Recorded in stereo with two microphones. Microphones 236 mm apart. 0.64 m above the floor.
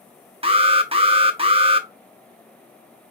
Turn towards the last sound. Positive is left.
turn(degrees=-25)  # may be behind; listen again after turning